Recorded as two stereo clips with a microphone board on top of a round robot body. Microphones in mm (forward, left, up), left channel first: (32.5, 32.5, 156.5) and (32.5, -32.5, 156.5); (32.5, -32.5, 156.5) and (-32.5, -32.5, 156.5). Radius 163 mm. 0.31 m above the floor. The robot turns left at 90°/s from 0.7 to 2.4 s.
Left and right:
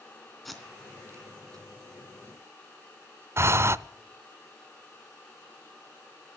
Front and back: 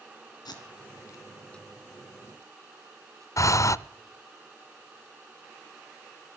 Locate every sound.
0.5 s tape being pulled: 5° left, 2.5 m; by 3.3 s 150° right, 2.5 m
3.4 s breathing: 40° right, 0.5 m